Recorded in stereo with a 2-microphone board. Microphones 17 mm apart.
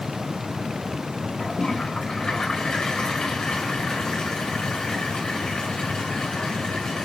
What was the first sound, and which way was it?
A toilet flushing, 70° left (ahead or behind).